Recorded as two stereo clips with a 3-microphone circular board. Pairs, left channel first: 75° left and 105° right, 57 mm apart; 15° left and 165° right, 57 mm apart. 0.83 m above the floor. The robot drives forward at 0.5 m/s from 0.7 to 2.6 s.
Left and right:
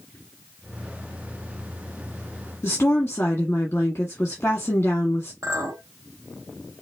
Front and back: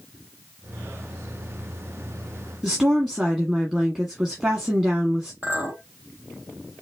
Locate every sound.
2.6 s a woman speaking: 125° left, 1.4 m
5.4 s a clink: 110° right, 1.5 m